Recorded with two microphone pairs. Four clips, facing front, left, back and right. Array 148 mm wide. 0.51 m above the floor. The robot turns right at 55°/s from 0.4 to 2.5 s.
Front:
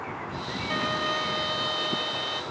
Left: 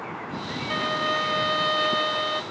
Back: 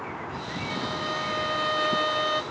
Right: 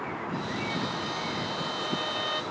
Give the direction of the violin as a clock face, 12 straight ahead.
10 o'clock.